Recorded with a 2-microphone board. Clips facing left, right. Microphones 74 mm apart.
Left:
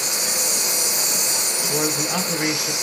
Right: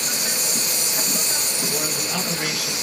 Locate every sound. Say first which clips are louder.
0.0 s an insect: left 1 dB; 45° right (ahead or behind), 1.2 m
1.7 s a man speaking: left 6 dB; 25° left (ahead or behind), 1.2 m